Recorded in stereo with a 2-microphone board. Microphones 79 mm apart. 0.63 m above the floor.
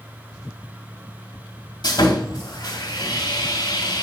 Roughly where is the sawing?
Left.